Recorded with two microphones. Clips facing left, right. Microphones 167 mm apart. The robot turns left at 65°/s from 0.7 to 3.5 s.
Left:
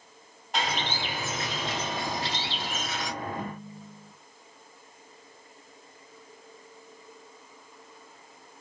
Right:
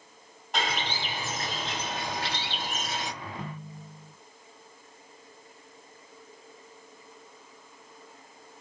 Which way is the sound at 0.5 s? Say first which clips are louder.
Left 1 dB; straight ahead.